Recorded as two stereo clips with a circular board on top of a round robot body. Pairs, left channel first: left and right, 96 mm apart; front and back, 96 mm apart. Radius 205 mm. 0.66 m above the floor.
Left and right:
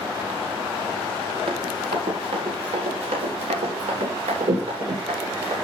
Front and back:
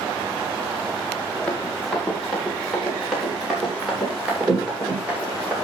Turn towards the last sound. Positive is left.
turn(degrees=-105)